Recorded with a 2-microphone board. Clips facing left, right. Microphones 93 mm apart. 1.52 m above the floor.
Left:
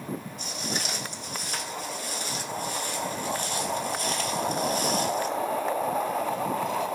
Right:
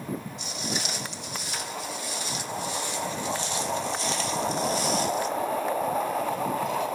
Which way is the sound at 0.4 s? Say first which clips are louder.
Even; 45° left (ahead or behind).